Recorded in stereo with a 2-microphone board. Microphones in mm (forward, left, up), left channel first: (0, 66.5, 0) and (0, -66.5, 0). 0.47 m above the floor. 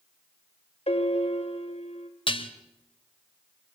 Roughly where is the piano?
Left.